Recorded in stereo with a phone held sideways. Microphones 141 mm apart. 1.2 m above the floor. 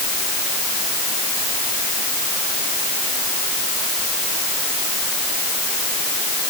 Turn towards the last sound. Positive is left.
No sound to turn to.